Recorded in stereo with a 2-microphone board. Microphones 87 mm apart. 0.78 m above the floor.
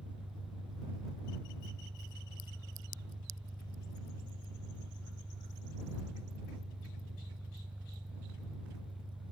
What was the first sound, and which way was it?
An engine running, 60° right (ahead or behind).